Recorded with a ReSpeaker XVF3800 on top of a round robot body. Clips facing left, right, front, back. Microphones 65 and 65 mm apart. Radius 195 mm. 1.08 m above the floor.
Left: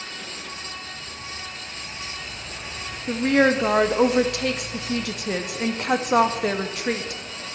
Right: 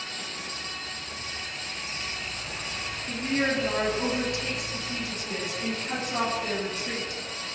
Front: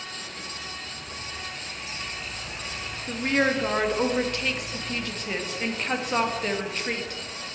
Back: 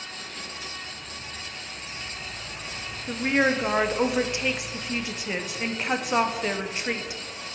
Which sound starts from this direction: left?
A woman speaking, at 3.1 s.